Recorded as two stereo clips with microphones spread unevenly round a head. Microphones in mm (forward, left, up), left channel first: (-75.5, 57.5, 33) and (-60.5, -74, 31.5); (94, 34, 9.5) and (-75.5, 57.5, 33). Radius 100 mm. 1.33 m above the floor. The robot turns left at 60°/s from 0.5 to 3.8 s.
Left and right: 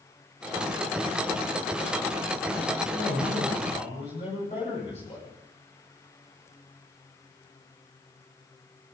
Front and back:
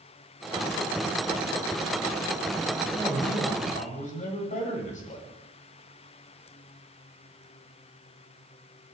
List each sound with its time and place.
2.9 s a man speaking: 90° left, 10 m; by 5.3 s 35° left, 10 m